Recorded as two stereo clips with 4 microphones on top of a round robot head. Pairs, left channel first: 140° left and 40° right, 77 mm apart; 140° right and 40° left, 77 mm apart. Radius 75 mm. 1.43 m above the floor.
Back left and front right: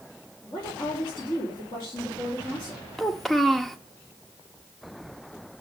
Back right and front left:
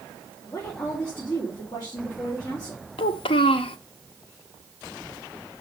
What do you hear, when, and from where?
0.4 s a woman speaking: 175° left, 4.5 m
3.0 s a child speaking: 135° right, 0.6 m